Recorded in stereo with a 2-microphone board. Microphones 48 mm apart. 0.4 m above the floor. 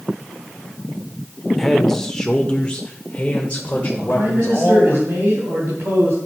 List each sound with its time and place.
1.6 s a man speaking: 5° left (ahead or behind), 0.9 m; by 5.0 s 30° left (ahead or behind), 1.6 m
4.0 s a man speaking: 55° right (ahead or behind), 2.5 m